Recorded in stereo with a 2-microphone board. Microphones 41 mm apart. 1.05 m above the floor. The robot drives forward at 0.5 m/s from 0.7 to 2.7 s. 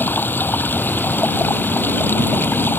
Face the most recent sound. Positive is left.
turn(degrees=55)  # may be behind; listen again after turning